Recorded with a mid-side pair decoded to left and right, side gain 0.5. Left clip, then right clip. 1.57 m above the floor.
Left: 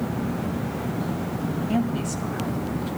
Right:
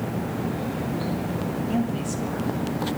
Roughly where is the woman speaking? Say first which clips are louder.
Left 1 dB; ahead left.